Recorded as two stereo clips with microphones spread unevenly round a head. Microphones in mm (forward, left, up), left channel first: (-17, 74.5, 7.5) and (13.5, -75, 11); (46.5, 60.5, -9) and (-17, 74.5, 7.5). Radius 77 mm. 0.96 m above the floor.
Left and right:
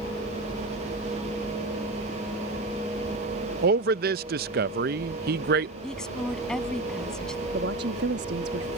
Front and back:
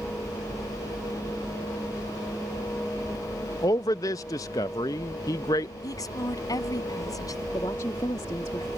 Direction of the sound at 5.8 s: 15° left.